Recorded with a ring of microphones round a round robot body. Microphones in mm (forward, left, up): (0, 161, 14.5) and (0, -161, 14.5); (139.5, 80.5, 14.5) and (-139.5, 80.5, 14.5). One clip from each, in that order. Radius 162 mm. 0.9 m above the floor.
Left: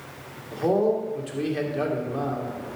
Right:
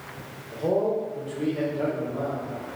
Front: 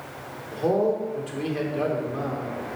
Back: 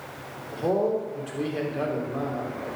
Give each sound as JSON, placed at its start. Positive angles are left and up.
{"t": 0.5, "sound": "a man speaking", "azimuth_deg": 85, "distance_m": 2.5}